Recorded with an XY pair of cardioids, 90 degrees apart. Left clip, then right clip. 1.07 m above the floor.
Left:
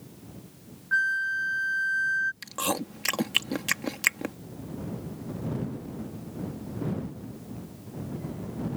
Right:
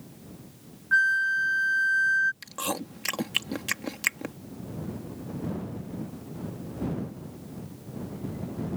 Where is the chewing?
20° left.